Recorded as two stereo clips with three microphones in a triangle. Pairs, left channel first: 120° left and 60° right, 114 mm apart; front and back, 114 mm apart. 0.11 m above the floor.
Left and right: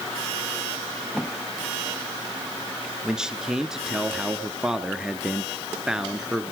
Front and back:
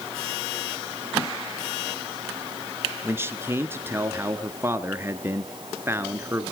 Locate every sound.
3.0 s a man speaking: 140° right, 1.2 m